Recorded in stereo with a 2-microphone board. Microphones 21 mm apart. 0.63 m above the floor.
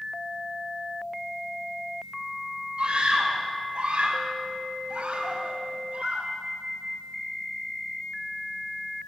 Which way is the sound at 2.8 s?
55° right (ahead or behind).